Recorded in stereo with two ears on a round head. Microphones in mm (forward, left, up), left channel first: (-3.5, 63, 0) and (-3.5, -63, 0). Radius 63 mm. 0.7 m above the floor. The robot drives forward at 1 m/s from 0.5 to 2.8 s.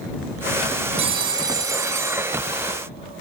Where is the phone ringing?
40° right (ahead or behind), 1.0 m; by 2.7 s 15° right (ahead or behind), 2.5 m.